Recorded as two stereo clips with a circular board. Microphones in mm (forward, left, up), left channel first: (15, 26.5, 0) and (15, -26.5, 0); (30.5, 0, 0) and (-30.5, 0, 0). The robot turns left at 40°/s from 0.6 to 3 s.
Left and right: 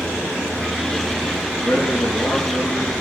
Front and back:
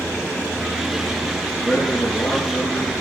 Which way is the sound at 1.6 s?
100° left.